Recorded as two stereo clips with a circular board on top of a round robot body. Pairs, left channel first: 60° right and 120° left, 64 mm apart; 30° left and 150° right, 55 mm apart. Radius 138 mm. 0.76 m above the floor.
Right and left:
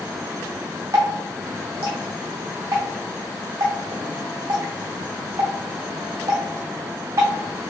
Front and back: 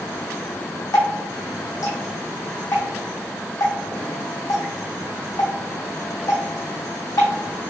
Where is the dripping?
70° left, 0.6 m.